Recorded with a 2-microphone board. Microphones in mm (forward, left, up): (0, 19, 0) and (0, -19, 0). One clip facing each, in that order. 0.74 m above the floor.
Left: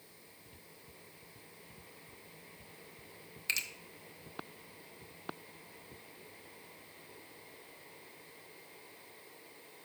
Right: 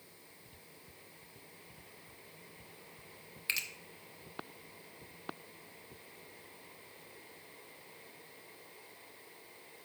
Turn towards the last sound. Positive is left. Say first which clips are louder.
# even
turn(degrees=-10)  # may be behind; listen again after turning